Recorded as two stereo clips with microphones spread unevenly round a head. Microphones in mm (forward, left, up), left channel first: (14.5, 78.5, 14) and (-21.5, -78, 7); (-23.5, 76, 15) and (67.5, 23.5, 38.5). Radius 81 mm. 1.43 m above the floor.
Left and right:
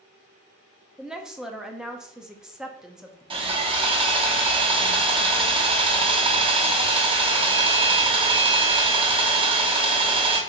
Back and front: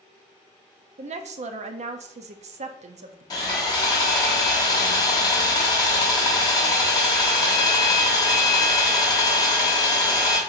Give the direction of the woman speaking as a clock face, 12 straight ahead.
1 o'clock.